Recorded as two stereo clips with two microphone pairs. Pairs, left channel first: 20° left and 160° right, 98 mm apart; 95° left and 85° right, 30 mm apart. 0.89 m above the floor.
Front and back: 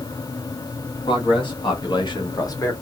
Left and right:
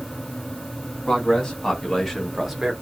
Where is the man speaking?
40° left, 1.5 m; by 2.7 s 15° right, 0.9 m.